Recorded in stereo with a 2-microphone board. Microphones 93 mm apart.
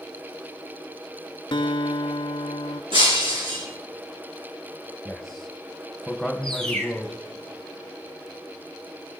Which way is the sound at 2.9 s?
75° right (ahead or behind).